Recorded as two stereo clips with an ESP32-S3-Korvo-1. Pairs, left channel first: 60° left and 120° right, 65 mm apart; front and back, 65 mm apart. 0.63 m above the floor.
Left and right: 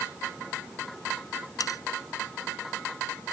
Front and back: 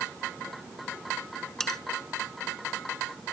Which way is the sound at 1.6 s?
85° left.